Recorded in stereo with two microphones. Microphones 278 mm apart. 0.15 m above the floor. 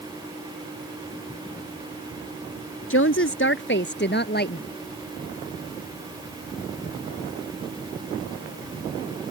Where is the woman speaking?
50° left (ahead or behind); by 4.7 s 35° left (ahead or behind).